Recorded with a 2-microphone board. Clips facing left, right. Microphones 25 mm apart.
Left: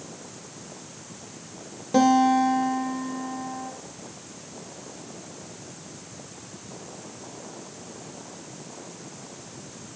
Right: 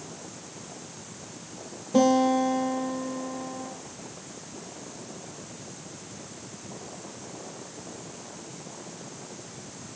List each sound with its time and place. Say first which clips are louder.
1.9 s a guitar: left 2 dB; 55° left (ahead or behind), 4 m